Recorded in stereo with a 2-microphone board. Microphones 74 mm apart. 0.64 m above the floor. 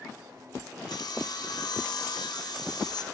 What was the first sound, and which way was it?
Sawing, 75° left (ahead or behind).